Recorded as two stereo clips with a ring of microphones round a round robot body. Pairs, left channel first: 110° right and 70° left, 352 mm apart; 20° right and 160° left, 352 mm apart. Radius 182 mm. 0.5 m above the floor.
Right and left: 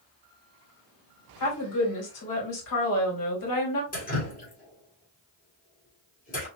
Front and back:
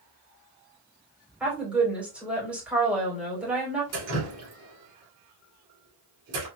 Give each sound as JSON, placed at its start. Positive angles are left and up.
{"t": 1.4, "sound": "a woman speaking", "azimuth_deg": -115, "distance_m": 2.0}
{"t": 3.9, "sound": "dripping", "azimuth_deg": -175, "distance_m": 1.9}